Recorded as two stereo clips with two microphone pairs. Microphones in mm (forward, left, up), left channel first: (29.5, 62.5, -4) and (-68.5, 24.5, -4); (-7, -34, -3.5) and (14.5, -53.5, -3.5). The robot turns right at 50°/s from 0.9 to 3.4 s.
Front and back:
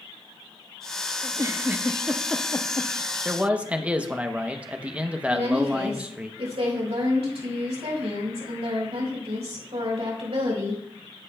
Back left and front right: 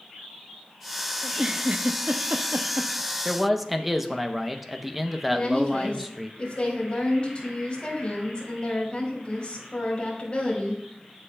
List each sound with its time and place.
1.2 s a giggle: 115° right, 0.5 m; by 3.1 s 20° right, 0.5 m
3.2 s a man speaking: 115° right, 0.6 m; by 6.3 s 105° right, 0.6 m
5.3 s a woman speaking: 170° right, 3.5 m